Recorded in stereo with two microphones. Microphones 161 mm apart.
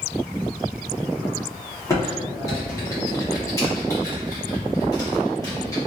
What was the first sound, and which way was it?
Typing on a keyboard, 20° left (ahead or behind).